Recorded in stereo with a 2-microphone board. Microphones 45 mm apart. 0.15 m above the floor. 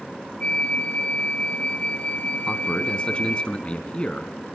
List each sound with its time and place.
0.4 s a flute: 25° left (ahead or behind), 1.2 m
2.5 s a man speaking: 25° left (ahead or behind), 1.4 m